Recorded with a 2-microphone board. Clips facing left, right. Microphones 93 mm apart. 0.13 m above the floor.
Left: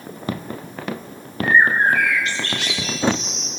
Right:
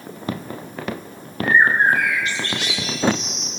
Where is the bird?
15° right (ahead or behind), 6 m.